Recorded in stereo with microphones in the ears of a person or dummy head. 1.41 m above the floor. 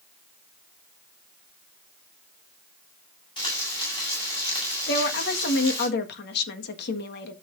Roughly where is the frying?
Left.